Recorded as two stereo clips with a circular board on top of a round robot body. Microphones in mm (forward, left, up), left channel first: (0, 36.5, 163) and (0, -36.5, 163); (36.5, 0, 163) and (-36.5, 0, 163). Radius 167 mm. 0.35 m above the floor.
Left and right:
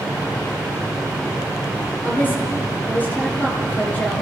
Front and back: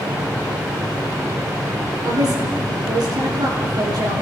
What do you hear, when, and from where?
2.0 s a woman speaking: 155° left, 8.5 m